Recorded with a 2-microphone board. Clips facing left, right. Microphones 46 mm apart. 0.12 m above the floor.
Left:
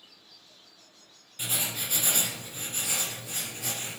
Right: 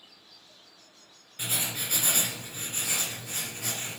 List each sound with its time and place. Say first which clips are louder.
1.4 s writing: even; 35° right (ahead or behind), 1.9 m